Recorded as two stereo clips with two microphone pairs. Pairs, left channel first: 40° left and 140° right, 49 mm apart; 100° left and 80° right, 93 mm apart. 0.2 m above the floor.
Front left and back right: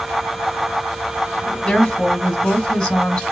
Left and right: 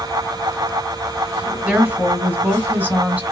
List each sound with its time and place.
1.6 s a woman speaking: 25° right, 1.7 m